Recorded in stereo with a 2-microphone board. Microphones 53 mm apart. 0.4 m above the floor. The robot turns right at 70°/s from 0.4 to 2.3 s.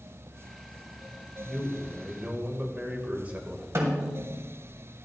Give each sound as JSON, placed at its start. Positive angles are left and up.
{"t": 1.4, "sound": "a man speaking", "azimuth_deg": 165, "distance_m": 1.7}
{"t": 3.8, "sound": "a snare drum", "side_deg": -60, "distance_m": 2.5}